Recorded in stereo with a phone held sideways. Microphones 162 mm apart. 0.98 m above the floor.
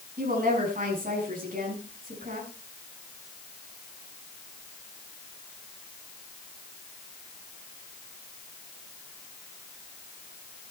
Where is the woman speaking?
60° right (ahead or behind), 7.5 m.